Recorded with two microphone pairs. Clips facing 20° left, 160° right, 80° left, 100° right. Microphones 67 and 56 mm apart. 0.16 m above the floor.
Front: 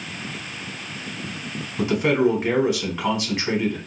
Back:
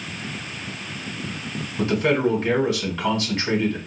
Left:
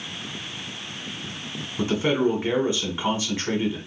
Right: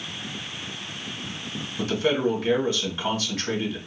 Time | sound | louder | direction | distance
1.8 | a man speaking | front 1 dB, left 1 dB | 70° left | 1.4 m